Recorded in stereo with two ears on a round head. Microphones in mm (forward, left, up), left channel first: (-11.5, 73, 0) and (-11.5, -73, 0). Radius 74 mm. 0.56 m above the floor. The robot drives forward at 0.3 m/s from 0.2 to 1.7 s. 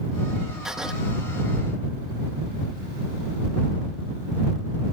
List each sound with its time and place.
0.7 s writing: 5° right (ahead or behind)